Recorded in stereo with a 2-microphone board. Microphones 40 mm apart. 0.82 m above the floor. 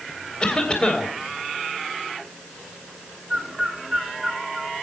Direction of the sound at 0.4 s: 25° left (ahead or behind).